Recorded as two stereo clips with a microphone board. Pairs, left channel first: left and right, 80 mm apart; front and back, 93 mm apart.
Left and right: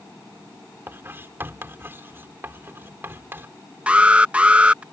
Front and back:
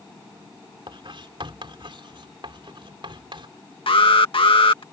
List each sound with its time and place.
0.9 s writing: 155° right
3.9 s an alarm: 15° right